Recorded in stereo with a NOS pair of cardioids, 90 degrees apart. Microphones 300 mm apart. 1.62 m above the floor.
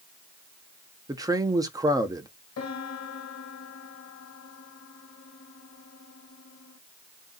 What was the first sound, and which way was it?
A man speaking, 10° right.